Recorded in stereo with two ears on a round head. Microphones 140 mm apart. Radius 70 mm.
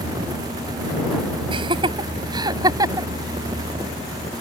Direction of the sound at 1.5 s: 35° right (ahead or behind).